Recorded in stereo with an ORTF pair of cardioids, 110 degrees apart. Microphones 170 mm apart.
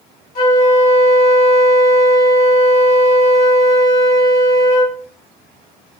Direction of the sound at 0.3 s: 55° left.